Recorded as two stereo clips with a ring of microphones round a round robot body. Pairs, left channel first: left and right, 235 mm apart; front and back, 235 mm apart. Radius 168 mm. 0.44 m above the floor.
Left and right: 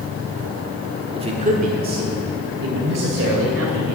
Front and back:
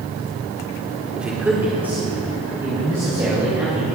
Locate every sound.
1.1 s a man speaking: 100° right, 1.4 m